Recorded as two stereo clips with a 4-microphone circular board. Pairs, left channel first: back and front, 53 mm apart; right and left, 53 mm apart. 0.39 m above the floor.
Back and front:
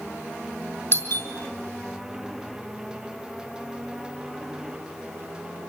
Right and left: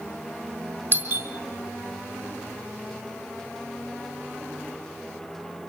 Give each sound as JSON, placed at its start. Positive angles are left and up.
{"t": 0.9, "sound": "a doorbell", "azimuth_deg": 145, "distance_m": 4.5}